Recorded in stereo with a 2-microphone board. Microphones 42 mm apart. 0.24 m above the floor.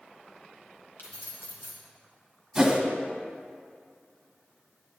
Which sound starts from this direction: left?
Keys jangling, at 1.0 s.